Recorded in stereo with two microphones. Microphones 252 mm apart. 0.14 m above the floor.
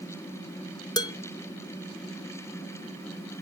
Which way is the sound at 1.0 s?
15° left (ahead or behind).